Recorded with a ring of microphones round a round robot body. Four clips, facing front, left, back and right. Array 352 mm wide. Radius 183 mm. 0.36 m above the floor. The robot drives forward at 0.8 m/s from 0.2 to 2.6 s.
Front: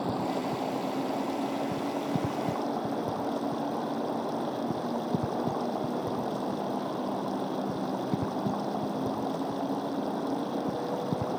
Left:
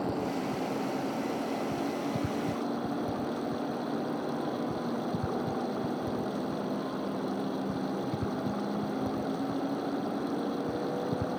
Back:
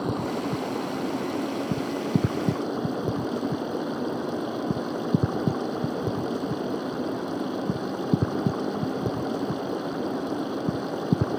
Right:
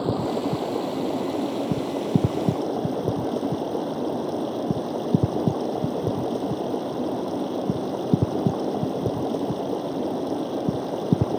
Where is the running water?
110° right; by 11.4 s 115° right.